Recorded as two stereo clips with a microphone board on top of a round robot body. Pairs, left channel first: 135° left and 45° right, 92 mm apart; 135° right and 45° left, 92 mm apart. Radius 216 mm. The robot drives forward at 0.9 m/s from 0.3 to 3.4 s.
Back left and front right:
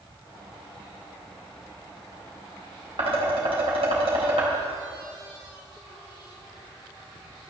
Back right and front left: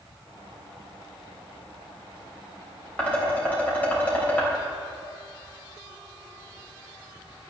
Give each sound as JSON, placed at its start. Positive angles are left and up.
{"t": 3.0, "sound": "dishes clattering", "azimuth_deg": -60, "distance_m": 3.5}